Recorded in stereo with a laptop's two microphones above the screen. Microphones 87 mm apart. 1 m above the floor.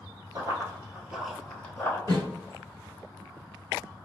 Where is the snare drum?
55° right (ahead or behind), 1.3 m.